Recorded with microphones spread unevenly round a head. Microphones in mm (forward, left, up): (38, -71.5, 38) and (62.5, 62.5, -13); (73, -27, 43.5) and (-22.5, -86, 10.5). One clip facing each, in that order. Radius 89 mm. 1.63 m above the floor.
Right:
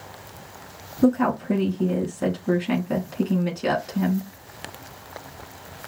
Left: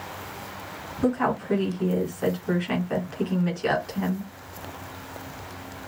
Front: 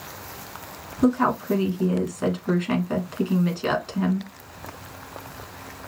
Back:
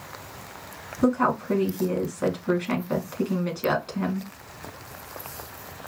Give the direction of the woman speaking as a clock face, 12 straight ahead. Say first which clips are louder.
Right 4 dB, front 2 dB; 2 o'clock.